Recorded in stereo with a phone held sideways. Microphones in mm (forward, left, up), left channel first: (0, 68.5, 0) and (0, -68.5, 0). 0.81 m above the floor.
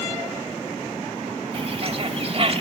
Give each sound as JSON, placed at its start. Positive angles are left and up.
{"t": 1.5, "sound": "a bird", "side_deg": -45, "distance_m": 1.3}